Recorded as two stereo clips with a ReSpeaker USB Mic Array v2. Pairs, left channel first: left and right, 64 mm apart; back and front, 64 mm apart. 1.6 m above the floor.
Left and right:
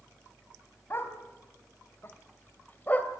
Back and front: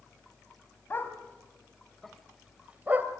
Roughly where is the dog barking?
Behind left.